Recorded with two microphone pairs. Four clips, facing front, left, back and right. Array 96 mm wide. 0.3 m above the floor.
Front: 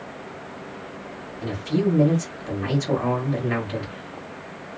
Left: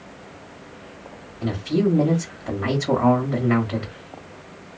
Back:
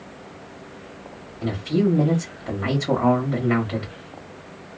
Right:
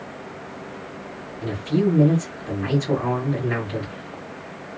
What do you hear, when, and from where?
1.4 s a man speaking: 140° left, 1.1 m